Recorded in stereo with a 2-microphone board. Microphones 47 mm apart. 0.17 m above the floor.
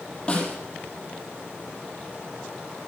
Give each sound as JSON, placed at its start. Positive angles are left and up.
{"t": 0.3, "sound": "a snare drum", "side_deg": 20, "distance_m": 4.0}